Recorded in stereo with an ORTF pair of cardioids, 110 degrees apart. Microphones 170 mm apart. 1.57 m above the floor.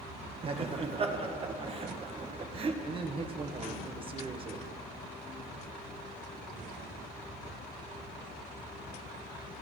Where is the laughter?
35° right, 1.6 m.